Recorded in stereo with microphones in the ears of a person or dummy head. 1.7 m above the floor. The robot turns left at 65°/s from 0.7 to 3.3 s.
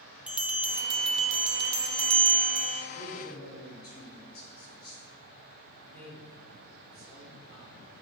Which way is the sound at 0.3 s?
5° right.